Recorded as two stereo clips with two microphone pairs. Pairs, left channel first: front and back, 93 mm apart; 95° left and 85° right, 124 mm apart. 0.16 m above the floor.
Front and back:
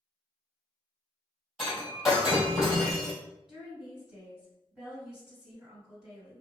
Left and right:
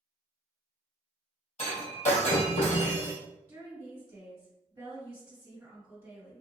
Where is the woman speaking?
120° right, 1.6 m.